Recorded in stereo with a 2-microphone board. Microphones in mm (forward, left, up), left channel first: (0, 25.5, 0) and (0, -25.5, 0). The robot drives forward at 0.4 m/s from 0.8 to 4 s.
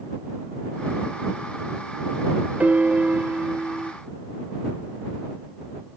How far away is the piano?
About 0.6 m.